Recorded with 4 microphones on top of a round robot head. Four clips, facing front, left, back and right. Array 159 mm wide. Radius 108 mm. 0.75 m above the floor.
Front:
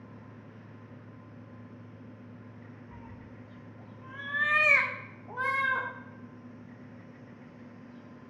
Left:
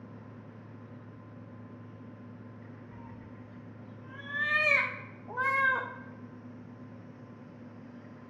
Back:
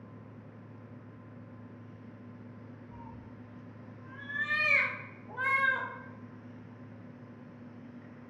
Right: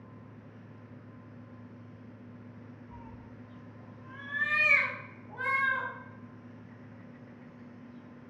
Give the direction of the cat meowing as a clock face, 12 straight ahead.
1 o'clock.